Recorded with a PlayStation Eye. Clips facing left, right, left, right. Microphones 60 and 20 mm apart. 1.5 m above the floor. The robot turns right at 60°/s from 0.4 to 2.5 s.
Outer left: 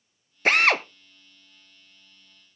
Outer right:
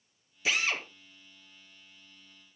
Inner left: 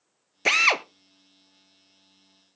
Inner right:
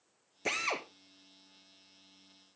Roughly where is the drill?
Left.